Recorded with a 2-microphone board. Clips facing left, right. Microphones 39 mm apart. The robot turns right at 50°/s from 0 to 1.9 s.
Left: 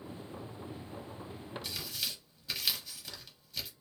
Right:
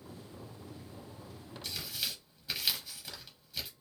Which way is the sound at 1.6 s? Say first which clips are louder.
Right 2 dB; 5° left (ahead or behind).